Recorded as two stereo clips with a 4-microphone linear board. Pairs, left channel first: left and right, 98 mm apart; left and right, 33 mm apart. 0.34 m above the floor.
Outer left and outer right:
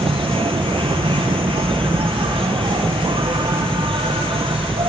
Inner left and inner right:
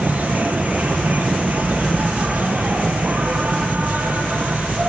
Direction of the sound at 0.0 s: 70° right (ahead or behind).